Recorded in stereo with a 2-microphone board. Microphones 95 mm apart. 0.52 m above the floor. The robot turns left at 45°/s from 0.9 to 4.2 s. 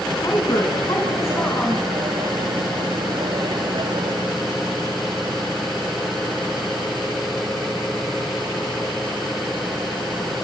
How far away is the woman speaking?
About 4 m.